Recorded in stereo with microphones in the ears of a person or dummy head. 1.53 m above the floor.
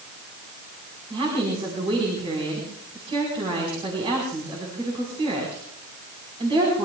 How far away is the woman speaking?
About 4.5 m.